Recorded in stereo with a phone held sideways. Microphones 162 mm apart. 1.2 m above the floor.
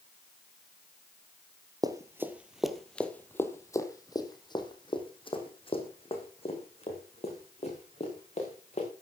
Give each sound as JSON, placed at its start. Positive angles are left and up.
{"t": 1.8, "sound": "running footsteps", "side_deg": -25, "distance_m": 1.5}